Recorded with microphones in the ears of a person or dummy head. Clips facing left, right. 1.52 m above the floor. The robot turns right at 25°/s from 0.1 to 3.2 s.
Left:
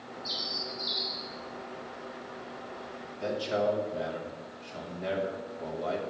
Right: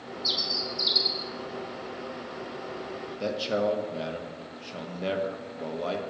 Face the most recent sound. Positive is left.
turn(degrees=-45)  # may be behind; listen again after turning